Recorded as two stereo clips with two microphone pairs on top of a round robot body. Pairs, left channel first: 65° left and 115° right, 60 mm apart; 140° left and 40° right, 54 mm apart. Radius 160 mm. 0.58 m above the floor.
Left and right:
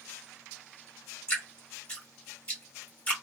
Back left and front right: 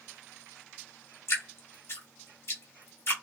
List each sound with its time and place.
1.3 s dripping: 130° left, 2.5 m